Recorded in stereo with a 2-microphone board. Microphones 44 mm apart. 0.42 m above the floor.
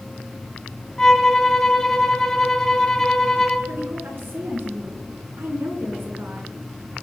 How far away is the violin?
About 1.6 m.